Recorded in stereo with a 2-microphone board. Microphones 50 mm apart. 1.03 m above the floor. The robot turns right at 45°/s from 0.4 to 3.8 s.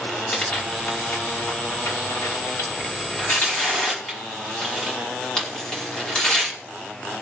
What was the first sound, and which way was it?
Tearing paper, 10° left (ahead or behind).